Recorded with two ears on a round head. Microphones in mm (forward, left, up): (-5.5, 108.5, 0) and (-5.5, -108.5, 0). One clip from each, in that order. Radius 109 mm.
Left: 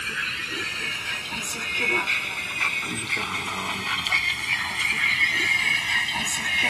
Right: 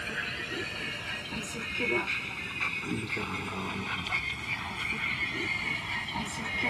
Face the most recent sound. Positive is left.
turn(degrees=70)  # may be behind; listen again after turning